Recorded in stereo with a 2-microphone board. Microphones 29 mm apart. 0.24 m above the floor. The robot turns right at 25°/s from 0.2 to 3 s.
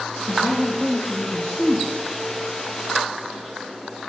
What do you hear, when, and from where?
0.3 s a man speaking: 60° left, 5 m; by 1.9 s 100° left, 5 m